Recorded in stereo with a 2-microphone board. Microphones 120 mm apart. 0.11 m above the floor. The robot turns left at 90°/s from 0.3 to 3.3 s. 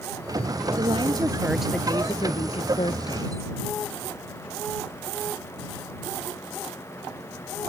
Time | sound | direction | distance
0.8 | a woman speaking | 100° right | ?